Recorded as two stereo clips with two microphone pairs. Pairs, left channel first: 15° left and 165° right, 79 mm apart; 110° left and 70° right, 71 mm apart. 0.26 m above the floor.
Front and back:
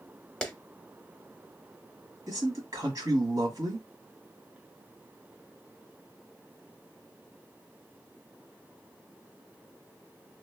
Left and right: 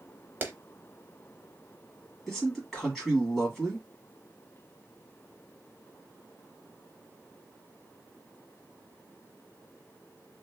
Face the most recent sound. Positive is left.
turn(degrees=-165)